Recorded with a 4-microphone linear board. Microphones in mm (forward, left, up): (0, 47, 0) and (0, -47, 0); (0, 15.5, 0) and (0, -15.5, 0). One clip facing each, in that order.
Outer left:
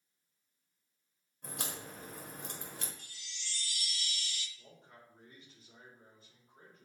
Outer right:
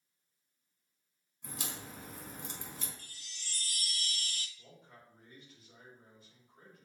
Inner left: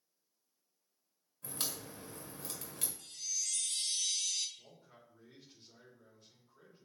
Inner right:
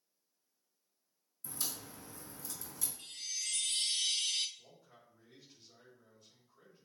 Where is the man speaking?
35° left (ahead or behind), 4 m.